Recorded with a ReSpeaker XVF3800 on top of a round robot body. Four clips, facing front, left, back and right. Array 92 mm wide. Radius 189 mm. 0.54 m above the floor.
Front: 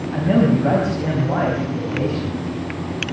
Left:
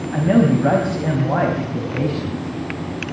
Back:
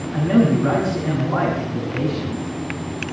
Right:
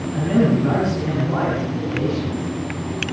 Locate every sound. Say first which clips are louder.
0.1 s a man speaking: left 2 dB, even; 70° left, 5 m